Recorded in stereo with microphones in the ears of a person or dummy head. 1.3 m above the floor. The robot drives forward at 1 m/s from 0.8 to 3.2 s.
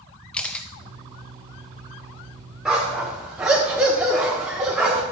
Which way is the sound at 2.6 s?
Centre (ahead or behind).